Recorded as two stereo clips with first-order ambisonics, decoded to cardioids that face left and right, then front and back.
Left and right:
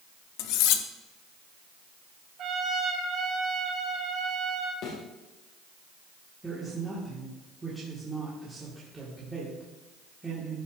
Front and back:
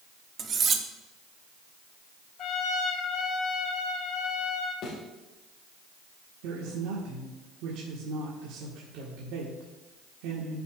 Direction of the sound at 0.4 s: 115° left.